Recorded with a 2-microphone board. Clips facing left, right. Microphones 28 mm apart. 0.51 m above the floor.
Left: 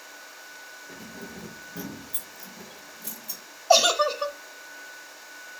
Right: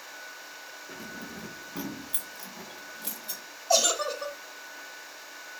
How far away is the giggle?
About 0.9 m.